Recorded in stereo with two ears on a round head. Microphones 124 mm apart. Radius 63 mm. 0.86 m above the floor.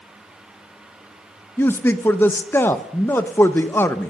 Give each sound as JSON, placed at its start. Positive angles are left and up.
{"t": 1.6, "sound": "a man speaking", "side_deg": 15, "distance_m": 0.6}